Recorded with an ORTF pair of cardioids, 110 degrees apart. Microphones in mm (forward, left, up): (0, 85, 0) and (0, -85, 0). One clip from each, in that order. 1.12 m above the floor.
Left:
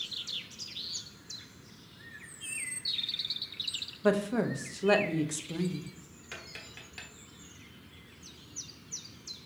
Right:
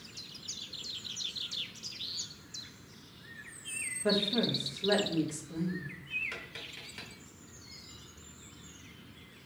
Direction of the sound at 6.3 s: 10° left.